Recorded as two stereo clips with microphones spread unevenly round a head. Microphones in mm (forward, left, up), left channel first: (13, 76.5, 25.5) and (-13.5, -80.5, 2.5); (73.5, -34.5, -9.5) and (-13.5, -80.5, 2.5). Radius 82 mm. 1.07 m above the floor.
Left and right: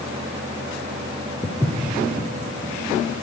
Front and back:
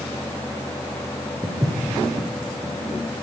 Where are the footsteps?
150° left, 1.5 m; by 3.2 s 175° left, 2.5 m.